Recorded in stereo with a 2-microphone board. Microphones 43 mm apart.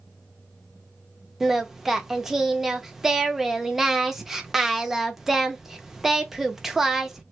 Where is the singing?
5° right (ahead or behind), 0.6 m.